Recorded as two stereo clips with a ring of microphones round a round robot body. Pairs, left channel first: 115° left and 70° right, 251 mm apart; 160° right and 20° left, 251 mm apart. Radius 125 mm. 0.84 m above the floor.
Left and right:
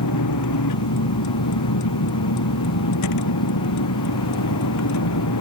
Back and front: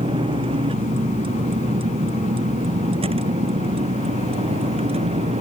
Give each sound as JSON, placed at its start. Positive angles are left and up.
{"t": 0.0, "sound": "a vehicle", "azimuth_deg": 95}